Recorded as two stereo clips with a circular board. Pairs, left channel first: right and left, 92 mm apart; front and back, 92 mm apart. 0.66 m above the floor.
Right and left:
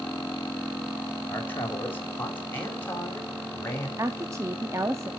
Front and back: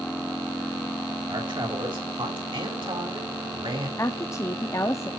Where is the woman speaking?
45° left, 0.7 m.